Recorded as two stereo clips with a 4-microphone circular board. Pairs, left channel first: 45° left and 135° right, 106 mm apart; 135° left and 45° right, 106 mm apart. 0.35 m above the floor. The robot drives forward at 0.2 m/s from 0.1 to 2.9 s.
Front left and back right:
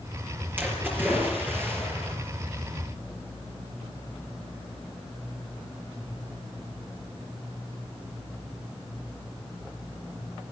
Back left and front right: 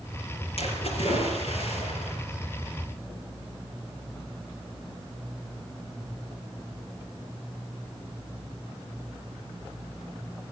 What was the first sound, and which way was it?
A splash, 150° left.